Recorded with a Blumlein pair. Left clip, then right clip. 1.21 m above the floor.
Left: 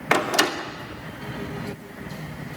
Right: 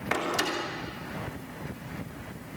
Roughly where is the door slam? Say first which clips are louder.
Left 8 dB; ahead left.